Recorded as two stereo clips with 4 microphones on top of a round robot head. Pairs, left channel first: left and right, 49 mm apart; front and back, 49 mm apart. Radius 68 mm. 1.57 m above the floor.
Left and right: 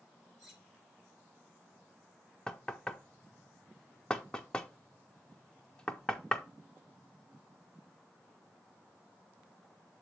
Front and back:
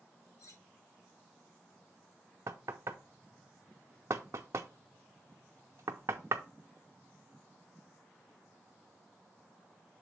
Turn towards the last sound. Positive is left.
turn(degrees=160)